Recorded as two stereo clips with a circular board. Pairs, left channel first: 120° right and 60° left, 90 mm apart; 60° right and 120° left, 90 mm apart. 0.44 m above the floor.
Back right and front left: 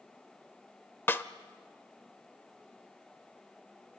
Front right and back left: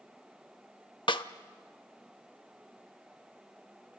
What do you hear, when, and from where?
1.1 s a snare drum: 60° right, 0.7 m